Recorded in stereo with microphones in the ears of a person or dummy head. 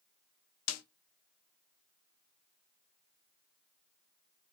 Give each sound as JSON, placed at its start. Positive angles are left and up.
{"t": 0.7, "sound": "a snare drum", "side_deg": 80, "distance_m": 0.6}